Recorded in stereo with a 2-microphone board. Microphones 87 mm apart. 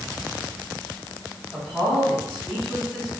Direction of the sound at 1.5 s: 20° right (ahead or behind).